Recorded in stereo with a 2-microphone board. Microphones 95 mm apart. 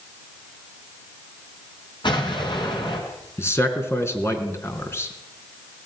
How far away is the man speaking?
About 3.5 m.